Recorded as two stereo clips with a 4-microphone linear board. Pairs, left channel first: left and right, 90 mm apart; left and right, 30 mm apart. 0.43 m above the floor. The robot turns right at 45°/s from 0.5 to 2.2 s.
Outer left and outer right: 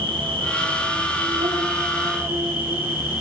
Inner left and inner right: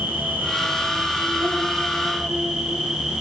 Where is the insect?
100° right, 5.5 m; by 3.2 s 25° right, 5.5 m.